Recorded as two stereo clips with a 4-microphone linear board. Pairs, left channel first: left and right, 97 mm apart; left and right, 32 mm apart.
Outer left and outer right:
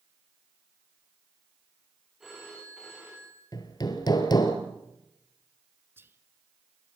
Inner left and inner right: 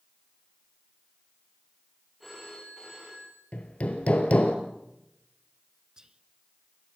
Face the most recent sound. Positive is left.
turn(degrees=-25)  # may be behind; listen again after turning